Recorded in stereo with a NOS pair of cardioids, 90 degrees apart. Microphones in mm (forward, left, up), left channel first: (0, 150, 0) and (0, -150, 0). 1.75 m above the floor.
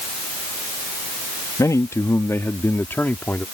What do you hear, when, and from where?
1.6 s a man speaking: 10° left; by 3.5 s 5° left